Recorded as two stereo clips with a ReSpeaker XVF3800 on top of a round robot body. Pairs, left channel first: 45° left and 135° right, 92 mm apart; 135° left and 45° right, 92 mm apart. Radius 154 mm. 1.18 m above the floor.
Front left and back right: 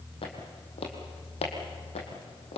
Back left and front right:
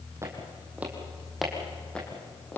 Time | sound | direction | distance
0.2 | footsteps | 15° left | 3 m